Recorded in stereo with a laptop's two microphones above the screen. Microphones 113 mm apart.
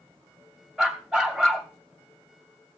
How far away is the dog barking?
About 2.5 m.